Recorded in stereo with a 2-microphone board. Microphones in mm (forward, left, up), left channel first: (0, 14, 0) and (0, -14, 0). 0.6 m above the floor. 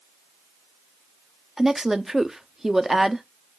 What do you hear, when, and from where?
1.6 s a woman speaking: 10° right (ahead or behind), 0.8 m